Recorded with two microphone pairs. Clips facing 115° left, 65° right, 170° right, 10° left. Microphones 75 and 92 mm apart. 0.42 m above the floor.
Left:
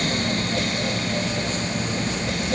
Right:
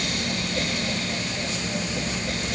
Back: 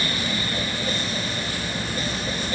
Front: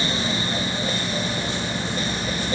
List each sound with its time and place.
Only background noise.